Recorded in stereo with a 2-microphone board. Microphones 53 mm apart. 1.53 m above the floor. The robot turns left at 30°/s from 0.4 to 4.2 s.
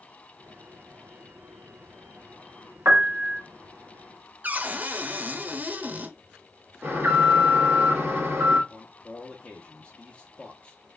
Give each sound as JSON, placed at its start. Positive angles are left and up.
{"t": 2.9, "sound": "a piano", "side_deg": -50, "distance_m": 0.9}
{"t": 4.4, "sound": "a cupboard door", "side_deg": -35, "distance_m": 0.7}
{"t": 6.8, "sound": "an alarm", "side_deg": -45, "distance_m": 1.7}
{"t": 8.7, "sound": "a man speaking", "side_deg": 20, "distance_m": 0.7}